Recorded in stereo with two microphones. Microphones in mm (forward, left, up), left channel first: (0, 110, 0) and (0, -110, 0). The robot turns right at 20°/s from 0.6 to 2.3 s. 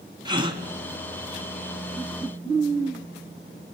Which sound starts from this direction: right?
A gasp, at 0.2 s.